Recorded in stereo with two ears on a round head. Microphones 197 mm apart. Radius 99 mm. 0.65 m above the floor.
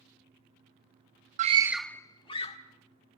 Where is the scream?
35° right (ahead or behind), 0.6 m; by 2.6 s 30° left (ahead or behind), 1.4 m.